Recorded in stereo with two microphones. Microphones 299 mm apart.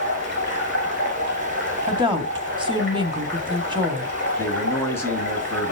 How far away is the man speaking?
About 2 m.